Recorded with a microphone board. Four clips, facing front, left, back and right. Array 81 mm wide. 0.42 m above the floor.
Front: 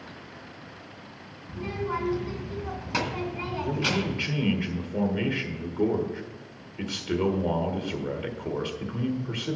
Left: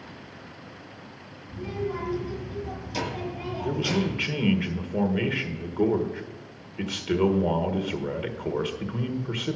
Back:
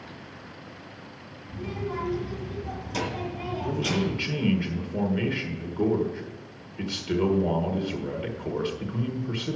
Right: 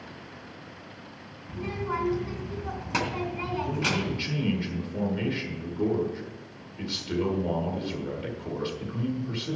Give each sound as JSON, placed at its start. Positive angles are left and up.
{"t": 1.5, "sound": "a child speaking", "azimuth_deg": -55, "distance_m": 3.0}
{"t": 3.6, "sound": "a man speaking", "azimuth_deg": 85, "distance_m": 1.6}